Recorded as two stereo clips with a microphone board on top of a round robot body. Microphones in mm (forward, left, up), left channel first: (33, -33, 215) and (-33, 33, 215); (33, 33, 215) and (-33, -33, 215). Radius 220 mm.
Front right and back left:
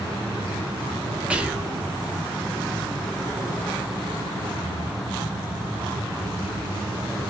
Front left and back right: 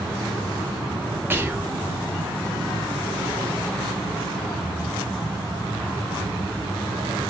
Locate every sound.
1.3 s whispering: 165° right, 0.9 m